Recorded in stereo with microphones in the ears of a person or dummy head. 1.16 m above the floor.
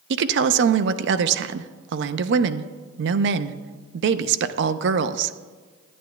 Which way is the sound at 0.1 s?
65° right (ahead or behind).